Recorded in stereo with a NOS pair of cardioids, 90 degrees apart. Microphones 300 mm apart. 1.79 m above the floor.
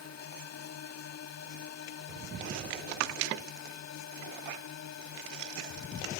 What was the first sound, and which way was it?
A drone, 55° left.